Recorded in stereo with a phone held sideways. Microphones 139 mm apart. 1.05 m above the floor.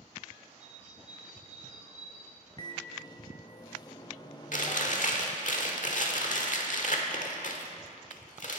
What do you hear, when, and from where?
0.6 s a bird: 60° right (ahead or behind), 1.7 m
2.6 s a microwave: 30° left (ahead or behind), 0.9 m
4.5 s chewing: 65° left (ahead or behind), 1.3 m